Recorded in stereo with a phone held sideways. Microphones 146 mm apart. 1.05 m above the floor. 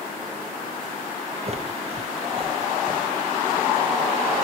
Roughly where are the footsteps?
Right.